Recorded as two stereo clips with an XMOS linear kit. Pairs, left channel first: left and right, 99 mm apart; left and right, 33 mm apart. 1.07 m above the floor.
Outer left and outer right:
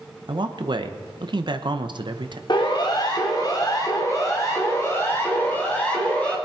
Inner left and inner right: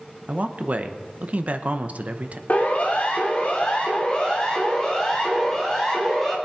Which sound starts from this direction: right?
A man speaking, at 0.3 s.